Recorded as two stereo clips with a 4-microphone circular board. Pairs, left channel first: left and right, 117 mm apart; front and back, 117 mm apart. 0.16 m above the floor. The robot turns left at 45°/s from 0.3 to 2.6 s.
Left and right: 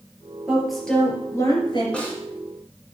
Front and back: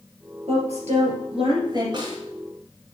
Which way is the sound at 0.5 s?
170° right.